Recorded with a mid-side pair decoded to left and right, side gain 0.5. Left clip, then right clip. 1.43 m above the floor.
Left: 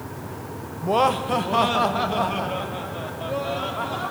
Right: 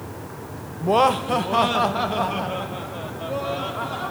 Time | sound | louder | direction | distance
0.8 | laughter | right 2 dB | 25° right | 1.0 m